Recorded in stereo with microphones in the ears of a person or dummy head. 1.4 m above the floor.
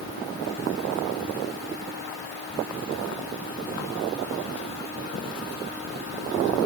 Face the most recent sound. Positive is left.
No sound to turn to.